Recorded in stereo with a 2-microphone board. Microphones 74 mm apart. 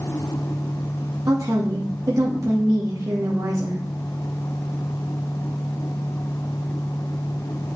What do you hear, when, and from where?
1.3 s a woman speaking: 55° right (ahead or behind), 1.6 m